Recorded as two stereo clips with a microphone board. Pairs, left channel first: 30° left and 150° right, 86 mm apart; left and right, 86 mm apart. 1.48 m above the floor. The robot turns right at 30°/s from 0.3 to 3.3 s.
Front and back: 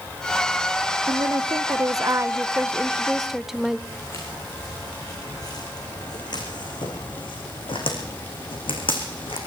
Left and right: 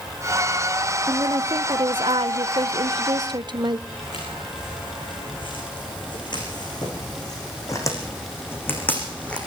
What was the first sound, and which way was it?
A woman speaking, 130° right.